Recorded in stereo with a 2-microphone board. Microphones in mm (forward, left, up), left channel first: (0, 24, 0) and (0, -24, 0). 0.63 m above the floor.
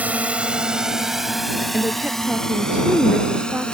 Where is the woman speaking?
25° right (ahead or behind).